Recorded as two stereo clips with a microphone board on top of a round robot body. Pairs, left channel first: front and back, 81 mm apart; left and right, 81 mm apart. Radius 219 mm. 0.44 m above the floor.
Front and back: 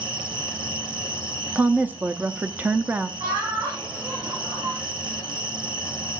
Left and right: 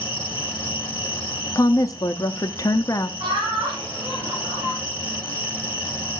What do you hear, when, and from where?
0.0 s an insect: 165° left, 5.5 m
1.6 s a woman speaking: 120° left, 0.9 m
3.2 s laughter: 140° right, 9 m